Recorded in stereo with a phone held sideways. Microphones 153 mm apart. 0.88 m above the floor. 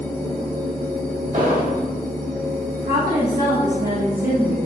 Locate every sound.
0.0 s a machine running: 20° left (ahead or behind), 1.5 m
1.3 s an explosion: 60° right (ahead or behind), 1.2 m
2.8 s a woman speaking: 70° right (ahead or behind), 1.5 m